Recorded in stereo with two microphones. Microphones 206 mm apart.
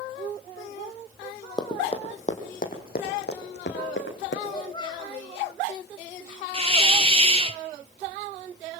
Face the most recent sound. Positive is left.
turn(degrees=-30)  # may be behind; listen again after turning